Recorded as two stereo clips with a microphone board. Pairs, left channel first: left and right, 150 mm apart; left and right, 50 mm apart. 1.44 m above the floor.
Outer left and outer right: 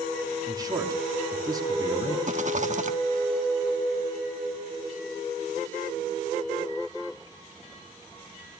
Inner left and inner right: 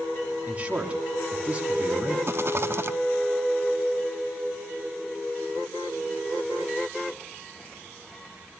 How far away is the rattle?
About 1.4 m.